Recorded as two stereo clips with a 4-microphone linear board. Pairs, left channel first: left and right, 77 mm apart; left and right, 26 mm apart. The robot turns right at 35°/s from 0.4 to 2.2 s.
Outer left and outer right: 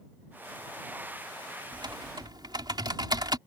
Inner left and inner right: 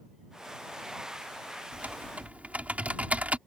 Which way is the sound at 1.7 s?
85° right.